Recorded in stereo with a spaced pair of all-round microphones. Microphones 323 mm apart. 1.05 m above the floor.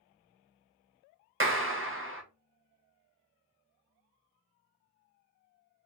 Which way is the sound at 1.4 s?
40° right (ahead or behind).